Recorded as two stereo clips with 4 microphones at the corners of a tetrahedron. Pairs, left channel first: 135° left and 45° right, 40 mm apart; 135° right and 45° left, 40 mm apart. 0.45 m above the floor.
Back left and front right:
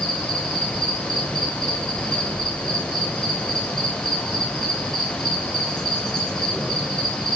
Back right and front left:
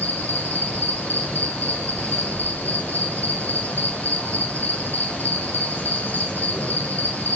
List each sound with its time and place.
0.0 s an insect: 135° right, 3.5 m